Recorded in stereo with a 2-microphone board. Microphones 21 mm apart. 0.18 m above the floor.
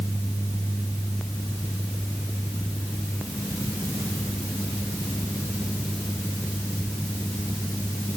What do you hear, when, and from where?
Only background noise.